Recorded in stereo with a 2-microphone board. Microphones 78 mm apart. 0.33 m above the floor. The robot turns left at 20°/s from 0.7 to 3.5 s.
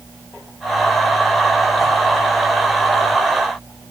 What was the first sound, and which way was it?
Only background noise.